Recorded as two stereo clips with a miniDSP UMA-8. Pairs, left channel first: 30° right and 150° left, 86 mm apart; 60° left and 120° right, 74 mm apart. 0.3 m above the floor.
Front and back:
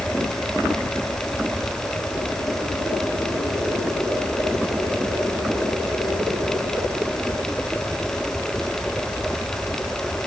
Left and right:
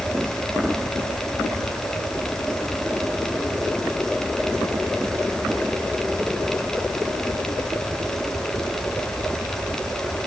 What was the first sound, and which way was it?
Only background noise.